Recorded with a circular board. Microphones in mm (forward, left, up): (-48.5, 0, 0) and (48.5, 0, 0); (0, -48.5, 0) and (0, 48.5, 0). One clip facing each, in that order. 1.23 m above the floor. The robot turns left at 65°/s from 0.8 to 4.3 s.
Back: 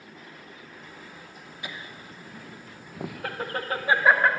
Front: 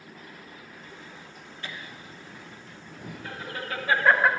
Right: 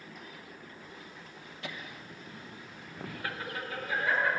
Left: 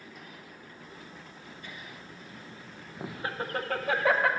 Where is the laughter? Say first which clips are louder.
Back 1 dB, right 5 dB; 100° right, 0.8 m; by 4.3 s 85° left, 0.8 m.